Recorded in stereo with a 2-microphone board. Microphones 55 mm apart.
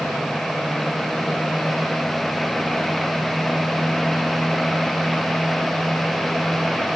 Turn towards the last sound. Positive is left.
No sound to turn to.